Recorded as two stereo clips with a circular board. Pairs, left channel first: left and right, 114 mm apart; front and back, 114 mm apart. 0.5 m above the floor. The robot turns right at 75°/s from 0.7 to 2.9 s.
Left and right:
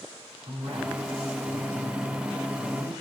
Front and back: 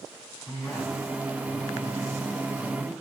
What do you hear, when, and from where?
0.5 s a man speaking: 70° right, 4.5 m; by 3.0 s 95° left, 4.5 m